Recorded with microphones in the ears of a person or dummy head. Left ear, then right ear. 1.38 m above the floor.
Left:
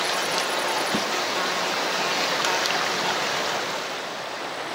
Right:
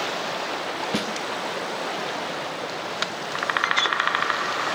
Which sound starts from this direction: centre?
A snare drum, at 0.9 s.